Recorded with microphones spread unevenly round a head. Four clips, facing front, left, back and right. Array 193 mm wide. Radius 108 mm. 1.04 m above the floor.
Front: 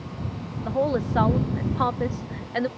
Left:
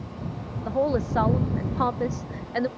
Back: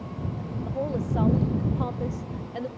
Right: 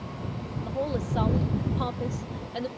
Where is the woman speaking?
30° left.